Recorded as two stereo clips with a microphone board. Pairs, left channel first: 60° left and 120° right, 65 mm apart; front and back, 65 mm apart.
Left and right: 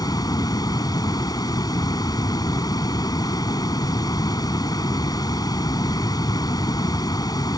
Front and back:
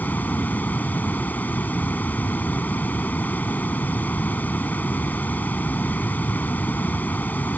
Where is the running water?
65° left.